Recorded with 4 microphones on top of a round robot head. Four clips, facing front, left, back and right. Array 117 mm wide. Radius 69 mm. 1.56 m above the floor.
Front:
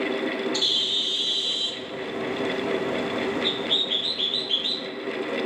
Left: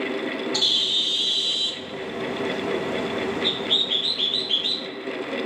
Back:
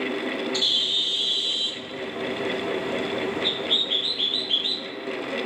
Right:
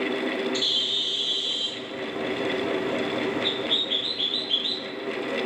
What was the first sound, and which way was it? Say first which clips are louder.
A bird: left 1 dB, even; 85° left.